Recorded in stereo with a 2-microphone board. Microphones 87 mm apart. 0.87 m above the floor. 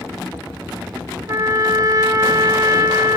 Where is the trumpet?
40° right (ahead or behind), 0.7 m.